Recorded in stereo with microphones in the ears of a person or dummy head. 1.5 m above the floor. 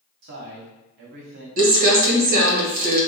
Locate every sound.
0.2 s a man speaking: 50° right (ahead or behind), 0.8 m
1.6 s crumpling: 50° right (ahead or behind), 1.1 m